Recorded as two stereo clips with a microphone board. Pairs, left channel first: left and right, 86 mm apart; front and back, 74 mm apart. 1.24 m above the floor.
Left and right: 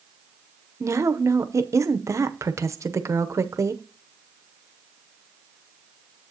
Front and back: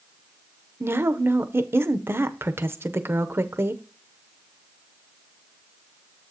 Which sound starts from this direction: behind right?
A woman speaking, at 0.8 s.